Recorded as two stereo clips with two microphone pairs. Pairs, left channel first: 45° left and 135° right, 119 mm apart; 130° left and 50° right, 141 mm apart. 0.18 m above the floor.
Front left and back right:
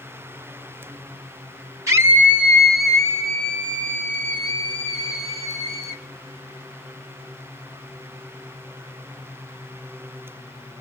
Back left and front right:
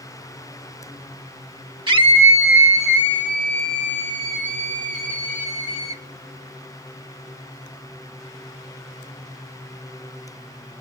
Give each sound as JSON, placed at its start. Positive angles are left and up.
{"t": 1.9, "sound": "a scream", "azimuth_deg": -85, "distance_m": 1.8}